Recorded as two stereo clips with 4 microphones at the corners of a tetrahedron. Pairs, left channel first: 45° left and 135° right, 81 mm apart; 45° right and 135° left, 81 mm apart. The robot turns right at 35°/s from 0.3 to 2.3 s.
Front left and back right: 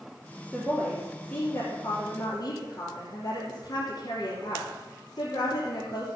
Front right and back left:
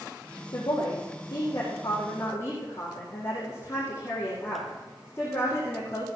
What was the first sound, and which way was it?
A woman speaking, 50° right.